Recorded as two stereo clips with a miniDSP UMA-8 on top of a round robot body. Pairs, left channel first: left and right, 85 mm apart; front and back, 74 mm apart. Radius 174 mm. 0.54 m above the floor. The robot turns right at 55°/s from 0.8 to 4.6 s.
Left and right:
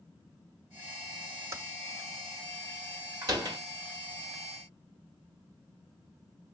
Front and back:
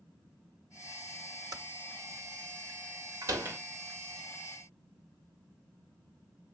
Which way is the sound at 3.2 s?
140° right.